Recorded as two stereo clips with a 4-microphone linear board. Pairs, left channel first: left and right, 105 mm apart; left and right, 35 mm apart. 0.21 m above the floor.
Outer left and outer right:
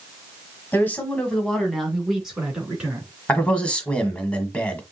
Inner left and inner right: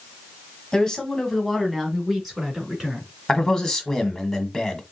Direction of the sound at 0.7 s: 20° left (ahead or behind).